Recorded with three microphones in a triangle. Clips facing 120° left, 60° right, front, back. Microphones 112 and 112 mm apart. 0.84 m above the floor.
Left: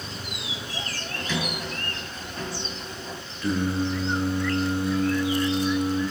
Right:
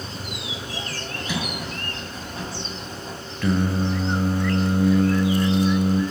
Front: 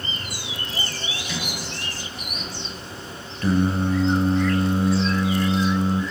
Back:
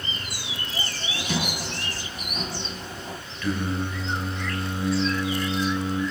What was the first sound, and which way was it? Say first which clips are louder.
A sliding door: even, back 6 dB; 140° right.